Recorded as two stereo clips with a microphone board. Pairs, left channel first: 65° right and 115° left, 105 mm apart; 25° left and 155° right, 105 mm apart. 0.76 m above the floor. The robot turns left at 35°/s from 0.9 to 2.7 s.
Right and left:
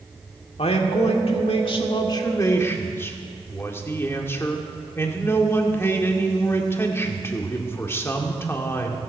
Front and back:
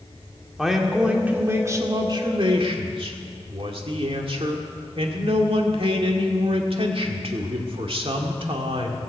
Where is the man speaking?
70° right, 1.8 m; by 9.0 s 135° right, 1.8 m.